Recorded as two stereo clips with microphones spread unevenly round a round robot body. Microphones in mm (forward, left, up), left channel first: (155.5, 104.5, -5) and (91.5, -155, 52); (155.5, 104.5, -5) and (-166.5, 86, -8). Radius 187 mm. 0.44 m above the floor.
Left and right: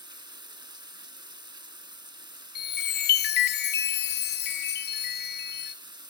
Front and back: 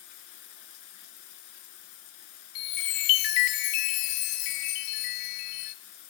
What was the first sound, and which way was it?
Running water, 35° right.